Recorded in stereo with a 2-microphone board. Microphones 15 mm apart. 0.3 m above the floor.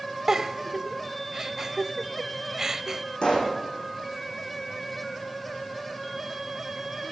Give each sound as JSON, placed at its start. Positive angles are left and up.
{"t": 0.3, "sound": "a giggle", "side_deg": -35, "distance_m": 0.8}
{"t": 3.2, "sound": "a pop", "side_deg": 85, "distance_m": 7.0}